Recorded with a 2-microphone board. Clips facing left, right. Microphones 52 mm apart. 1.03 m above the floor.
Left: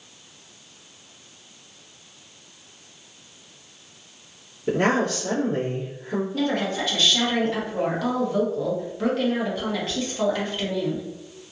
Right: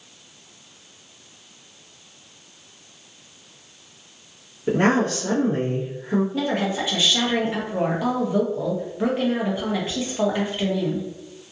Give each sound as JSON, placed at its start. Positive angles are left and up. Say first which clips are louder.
{"t": 4.7, "sound": "a woman speaking", "louder": "right 2 dB", "side_deg": -35, "distance_m": 1.2}
{"t": 6.3, "sound": "a woman speaking", "louder": "right 1 dB", "side_deg": -15, "distance_m": 0.8}